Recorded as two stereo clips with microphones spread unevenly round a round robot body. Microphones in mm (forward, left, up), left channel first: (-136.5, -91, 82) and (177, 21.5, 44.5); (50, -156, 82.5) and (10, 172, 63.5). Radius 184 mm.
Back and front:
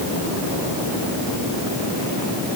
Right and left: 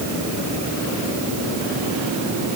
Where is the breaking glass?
I don't hear breaking glass.